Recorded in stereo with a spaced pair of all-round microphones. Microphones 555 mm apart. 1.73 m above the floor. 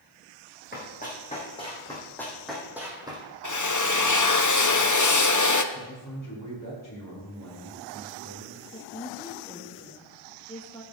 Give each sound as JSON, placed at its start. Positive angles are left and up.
{"t": 0.7, "sound": "running footsteps", "side_deg": 15, "distance_m": 4.5}
{"t": 3.4, "sound": "a drill", "side_deg": 35, "distance_m": 0.7}
{"t": 5.7, "sound": "a man speaking", "side_deg": 35, "distance_m": 5.5}
{"t": 8.7, "sound": "a woman speaking", "side_deg": 10, "distance_m": 1.3}